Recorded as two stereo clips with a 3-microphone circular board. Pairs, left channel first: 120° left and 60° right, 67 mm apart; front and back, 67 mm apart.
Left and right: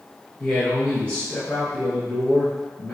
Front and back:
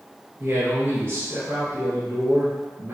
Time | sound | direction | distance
0.4 | a man speaking | 175° left | 1.6 m